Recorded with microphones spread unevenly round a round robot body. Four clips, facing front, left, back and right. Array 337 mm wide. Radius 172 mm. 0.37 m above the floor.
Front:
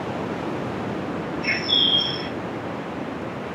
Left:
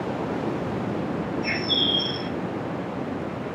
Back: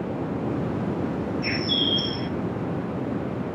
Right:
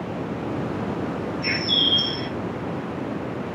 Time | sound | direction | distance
1.4 | a bird | 150° right | 1.4 m